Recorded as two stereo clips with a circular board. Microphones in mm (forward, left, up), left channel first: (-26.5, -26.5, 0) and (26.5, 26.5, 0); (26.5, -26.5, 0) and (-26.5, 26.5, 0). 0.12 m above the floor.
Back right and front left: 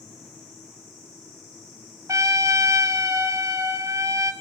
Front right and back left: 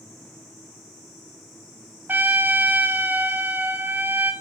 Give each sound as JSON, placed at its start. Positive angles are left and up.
{"t": 2.1, "sound": "a trumpet", "azimuth_deg": 80, "distance_m": 0.9}